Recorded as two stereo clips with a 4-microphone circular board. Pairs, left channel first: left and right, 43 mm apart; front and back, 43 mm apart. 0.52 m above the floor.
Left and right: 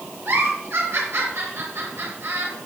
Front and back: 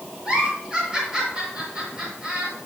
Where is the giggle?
105° right, 7 m.